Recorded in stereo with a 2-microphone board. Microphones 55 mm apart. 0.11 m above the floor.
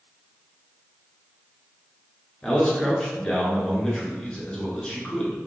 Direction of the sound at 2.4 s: 15° left (ahead or behind).